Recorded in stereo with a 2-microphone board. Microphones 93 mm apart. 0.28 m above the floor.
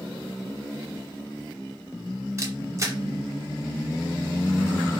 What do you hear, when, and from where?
2.4 s a camera shutter: 30° right (ahead or behind), 0.7 m